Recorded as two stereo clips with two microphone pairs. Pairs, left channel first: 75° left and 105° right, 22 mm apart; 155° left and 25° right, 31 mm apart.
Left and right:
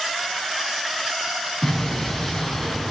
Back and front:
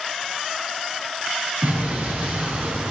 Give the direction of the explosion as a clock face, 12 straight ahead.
12 o'clock.